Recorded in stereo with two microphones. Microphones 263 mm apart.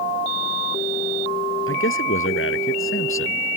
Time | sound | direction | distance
1.7 | a man speaking | 55° left (ahead or behind) | ?